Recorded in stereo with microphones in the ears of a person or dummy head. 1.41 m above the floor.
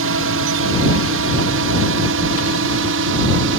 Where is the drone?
60° right (ahead or behind); by 3.6 s 65° right (ahead or behind).